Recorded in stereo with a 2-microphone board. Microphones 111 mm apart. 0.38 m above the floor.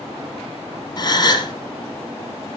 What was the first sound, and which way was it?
A gasp, 40° left (ahead or behind).